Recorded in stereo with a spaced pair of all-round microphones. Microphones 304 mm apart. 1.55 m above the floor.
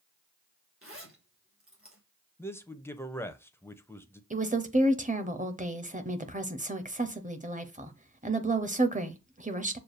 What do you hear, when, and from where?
0.8 s a zipper: 45° right (ahead or behind), 2 m
2.4 s a man speaking: 10° left (ahead or behind), 0.6 m
4.3 s a woman speaking: 25° right (ahead or behind), 0.8 m